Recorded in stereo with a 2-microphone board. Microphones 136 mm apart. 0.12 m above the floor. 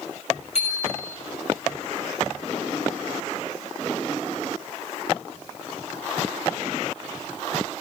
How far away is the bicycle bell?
About 7.5 m.